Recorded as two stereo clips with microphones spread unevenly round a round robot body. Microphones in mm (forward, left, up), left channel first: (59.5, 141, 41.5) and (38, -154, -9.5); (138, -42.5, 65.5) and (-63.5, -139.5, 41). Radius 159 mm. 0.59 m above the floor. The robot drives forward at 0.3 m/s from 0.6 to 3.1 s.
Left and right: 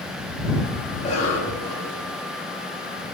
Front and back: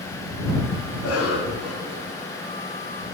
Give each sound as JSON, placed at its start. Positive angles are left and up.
{"t": 0.9, "sound": "a cough", "azimuth_deg": 20, "distance_m": 4.0}